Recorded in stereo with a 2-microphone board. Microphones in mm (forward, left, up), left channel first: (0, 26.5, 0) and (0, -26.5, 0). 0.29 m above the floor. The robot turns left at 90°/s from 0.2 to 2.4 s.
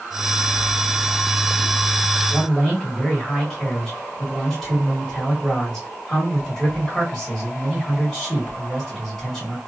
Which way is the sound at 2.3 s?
5° left (ahead or behind).